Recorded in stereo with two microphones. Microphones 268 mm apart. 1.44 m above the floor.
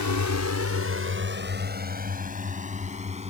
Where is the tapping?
I don't hear tapping.